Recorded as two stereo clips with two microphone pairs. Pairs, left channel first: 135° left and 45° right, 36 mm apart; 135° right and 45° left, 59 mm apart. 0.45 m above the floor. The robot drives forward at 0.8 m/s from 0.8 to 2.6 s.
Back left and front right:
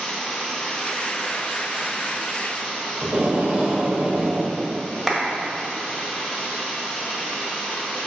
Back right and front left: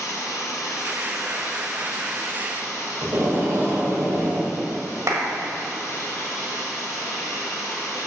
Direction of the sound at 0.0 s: 150° right.